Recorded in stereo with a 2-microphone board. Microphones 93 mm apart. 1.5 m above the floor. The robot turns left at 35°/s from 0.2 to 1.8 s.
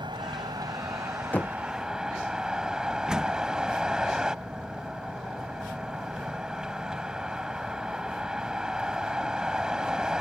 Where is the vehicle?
115° right; by 10.2 s 170° right.